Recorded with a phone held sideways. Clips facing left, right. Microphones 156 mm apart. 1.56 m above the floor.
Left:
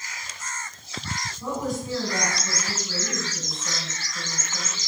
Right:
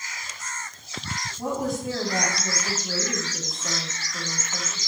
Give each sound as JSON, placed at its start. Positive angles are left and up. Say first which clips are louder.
{"t": 1.4, "sound": "a woman speaking", "louder": "right 2 dB", "side_deg": -75, "distance_m": 3.5}